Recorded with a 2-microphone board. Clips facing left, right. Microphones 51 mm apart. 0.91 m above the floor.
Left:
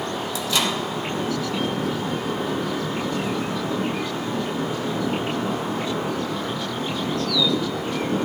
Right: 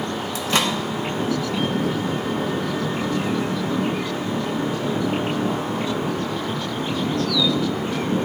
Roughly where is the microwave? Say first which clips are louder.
Right 3 dB; right.